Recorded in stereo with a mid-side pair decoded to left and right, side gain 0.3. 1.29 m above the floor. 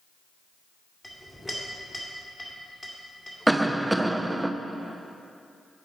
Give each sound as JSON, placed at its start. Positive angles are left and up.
{"t": 1.0, "sound": "a clink", "azimuth_deg": 10, "distance_m": 2.0}
{"t": 3.5, "sound": "a cough", "azimuth_deg": -20, "distance_m": 0.6}